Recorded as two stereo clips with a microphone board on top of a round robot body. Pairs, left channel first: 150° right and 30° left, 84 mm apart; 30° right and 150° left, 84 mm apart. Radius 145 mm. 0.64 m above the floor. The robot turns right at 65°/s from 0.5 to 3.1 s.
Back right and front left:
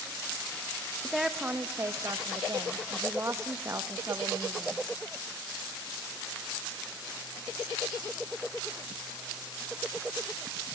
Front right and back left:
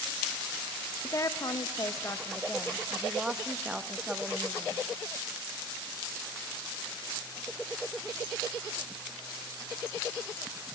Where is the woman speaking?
65° right, 0.9 m; by 4.8 s 70° left, 0.9 m.